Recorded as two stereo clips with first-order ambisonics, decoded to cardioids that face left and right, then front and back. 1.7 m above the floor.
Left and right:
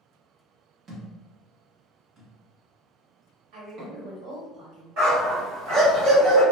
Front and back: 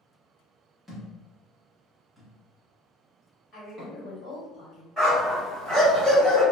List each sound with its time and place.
0.9 s a thud: 90° right, 1.0 m
3.5 s a woman speaking: 55° right, 1.6 m
5.0 s a dog barking: 85° right, 1.7 m